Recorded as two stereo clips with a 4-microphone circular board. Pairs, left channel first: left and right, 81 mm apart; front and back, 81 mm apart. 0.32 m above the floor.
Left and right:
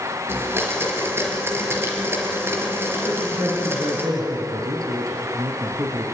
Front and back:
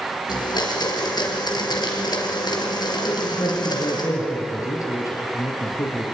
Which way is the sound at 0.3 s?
30° right.